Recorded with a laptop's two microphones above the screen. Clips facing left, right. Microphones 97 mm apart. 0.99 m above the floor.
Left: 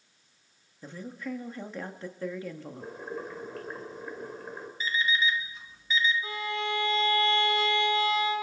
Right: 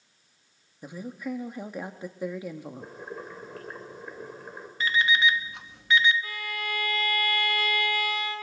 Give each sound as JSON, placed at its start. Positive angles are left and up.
{"t": 0.8, "sound": "a woman speaking", "side_deg": -15, "distance_m": 1.9}
{"t": 2.8, "sound": "boiling", "side_deg": 0, "distance_m": 2.5}
{"t": 4.8, "sound": "an alarm clock", "side_deg": -70, "distance_m": 0.7}
{"t": 6.2, "sound": "a violin", "side_deg": 25, "distance_m": 1.9}